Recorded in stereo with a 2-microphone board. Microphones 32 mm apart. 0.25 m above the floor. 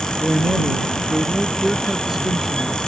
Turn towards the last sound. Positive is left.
turn(degrees=-5)  # may be behind; listen again after turning